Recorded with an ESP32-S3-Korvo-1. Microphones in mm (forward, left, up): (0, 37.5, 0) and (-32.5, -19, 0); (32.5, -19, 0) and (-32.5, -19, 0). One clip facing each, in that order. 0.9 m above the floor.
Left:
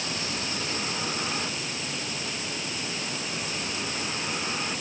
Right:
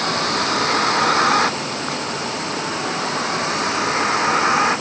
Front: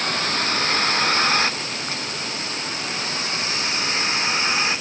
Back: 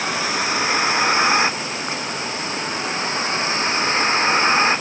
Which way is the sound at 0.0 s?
100° right.